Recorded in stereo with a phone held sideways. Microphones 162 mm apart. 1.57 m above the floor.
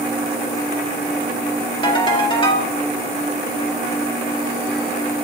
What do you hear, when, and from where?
1.8 s a ringtone: 30° left (ahead or behind), 1.4 m